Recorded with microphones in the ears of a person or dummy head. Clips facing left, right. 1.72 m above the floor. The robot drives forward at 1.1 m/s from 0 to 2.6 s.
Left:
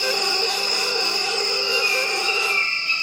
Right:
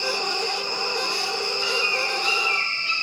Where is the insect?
65° left (ahead or behind), 2.5 m; by 3.0 s 50° left (ahead or behind), 3 m.